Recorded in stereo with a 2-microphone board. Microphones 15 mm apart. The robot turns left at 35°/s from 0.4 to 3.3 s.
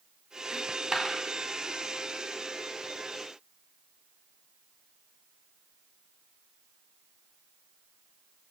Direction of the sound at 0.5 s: 35° right (ahead or behind).